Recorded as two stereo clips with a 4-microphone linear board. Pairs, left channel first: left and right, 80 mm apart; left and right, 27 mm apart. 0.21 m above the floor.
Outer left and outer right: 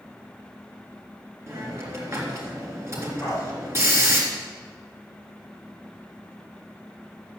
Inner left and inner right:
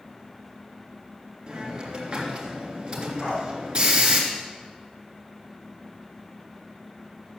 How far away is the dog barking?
About 7 m.